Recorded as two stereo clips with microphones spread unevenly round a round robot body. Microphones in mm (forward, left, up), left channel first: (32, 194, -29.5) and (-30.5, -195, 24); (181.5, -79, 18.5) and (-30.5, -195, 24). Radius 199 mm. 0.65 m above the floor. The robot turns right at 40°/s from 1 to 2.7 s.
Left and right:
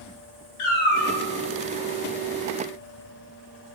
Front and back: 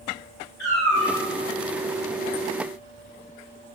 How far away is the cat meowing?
About 0.7 m.